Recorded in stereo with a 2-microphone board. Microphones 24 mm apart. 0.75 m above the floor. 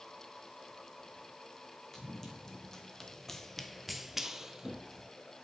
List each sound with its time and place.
1.9 s running footsteps: 25° left (ahead or behind), 2.5 m; by 5.1 s 25° right (ahead or behind), 1.6 m